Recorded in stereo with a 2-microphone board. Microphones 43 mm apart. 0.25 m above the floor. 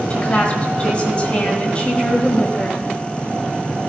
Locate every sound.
0.1 s a woman speaking: 25° left (ahead or behind), 1.2 m